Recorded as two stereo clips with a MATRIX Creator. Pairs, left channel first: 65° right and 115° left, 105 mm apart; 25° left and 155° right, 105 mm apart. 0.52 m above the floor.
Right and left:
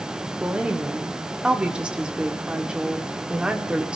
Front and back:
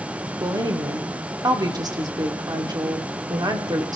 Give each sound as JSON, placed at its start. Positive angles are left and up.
{"t": 0.4, "sound": "a woman speaking", "azimuth_deg": -175, "distance_m": 1.3}